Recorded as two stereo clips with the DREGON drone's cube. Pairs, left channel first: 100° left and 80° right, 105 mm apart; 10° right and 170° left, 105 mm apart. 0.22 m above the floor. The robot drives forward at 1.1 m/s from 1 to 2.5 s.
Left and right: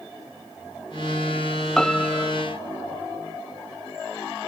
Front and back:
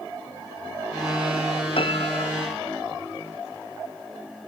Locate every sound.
1.8 s a piano: 15° left; by 2.3 s 20° left